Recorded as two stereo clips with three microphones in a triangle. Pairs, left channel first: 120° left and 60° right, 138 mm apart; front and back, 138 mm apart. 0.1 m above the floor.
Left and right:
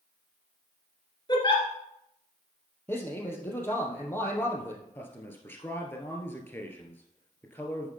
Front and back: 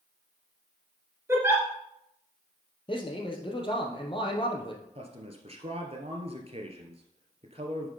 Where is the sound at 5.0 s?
170° right, 1.8 m.